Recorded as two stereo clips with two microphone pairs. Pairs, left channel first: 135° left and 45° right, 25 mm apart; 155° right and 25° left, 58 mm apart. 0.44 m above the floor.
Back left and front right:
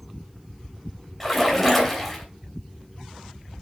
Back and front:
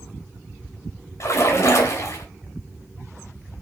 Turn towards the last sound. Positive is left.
turn(degrees=-145)